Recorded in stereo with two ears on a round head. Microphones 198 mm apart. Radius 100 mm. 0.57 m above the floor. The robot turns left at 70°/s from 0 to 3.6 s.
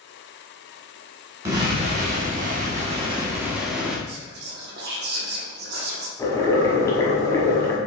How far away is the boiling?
About 1.3 m.